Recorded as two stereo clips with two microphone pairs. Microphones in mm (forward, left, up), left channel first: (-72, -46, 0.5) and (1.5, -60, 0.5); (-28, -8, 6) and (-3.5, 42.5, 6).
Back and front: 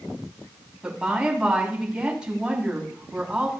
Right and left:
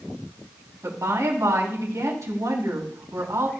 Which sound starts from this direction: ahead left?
A woman speaking, at 0.8 s.